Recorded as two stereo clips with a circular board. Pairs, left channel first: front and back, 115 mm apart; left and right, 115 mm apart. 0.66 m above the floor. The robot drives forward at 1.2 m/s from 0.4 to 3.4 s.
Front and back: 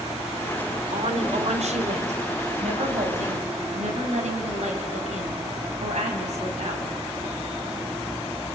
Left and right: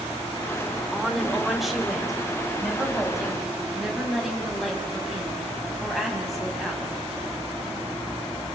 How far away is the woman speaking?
About 2.5 m.